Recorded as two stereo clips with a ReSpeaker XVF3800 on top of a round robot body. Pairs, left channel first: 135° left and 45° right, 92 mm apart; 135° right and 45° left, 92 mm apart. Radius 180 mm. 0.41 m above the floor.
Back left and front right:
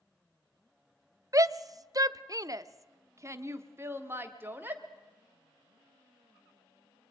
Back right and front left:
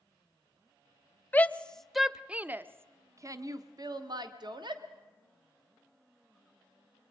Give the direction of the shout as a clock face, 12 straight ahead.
2 o'clock.